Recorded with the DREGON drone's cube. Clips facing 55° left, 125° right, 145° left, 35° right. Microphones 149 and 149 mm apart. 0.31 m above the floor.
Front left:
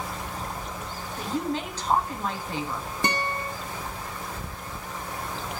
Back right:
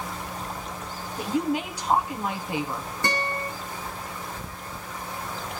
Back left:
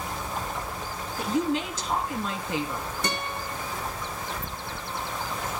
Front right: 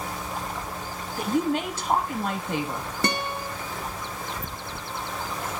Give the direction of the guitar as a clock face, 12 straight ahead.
12 o'clock.